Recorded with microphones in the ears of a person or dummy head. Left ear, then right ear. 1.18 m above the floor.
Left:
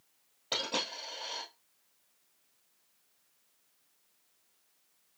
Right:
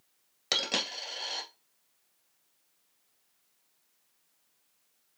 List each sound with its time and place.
0.5 s a dropped coin: 60° right (ahead or behind), 2.5 m